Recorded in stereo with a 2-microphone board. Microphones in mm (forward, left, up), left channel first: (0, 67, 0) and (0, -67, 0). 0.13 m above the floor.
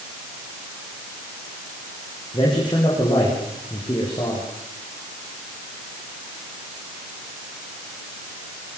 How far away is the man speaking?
About 6.5 m.